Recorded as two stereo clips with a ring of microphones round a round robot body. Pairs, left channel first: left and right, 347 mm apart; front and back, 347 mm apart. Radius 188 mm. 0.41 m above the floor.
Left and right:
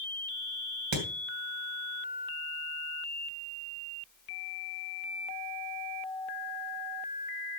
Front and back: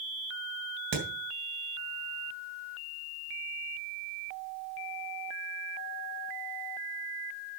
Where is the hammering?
125° right, 2.5 m.